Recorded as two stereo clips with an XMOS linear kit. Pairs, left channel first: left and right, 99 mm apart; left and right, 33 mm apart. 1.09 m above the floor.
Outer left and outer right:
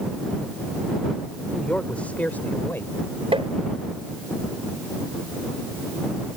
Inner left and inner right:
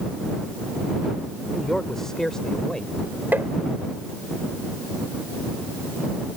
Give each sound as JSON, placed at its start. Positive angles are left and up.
{"t": 1.5, "sound": "a man speaking", "side_deg": 10}
{"t": 3.3, "sound": "tapping", "side_deg": -70}